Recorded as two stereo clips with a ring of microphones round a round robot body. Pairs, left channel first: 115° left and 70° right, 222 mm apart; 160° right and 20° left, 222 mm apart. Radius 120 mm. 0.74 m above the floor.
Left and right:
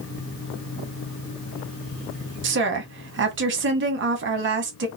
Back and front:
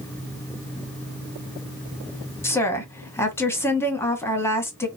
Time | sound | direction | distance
2.4 | a woman speaking | 80° right | 1.5 m